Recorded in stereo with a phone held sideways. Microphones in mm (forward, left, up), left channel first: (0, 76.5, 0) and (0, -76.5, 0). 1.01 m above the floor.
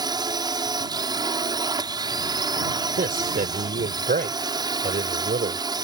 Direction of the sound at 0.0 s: 25° right (ahead or behind).